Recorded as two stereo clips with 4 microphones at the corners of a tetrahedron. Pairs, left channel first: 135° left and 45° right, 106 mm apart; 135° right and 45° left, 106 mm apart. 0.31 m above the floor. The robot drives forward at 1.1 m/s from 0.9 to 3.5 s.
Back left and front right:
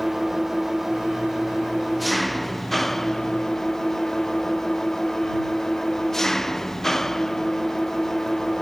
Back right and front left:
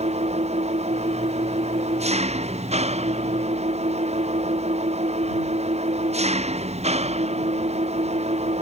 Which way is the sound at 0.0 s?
45° left.